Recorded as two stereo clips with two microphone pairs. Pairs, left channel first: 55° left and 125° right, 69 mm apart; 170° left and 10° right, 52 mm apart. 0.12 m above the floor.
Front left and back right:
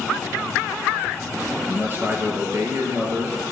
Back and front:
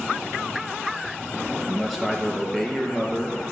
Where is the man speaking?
80° right, 1.1 m; by 3.5 s 115° right, 1.9 m.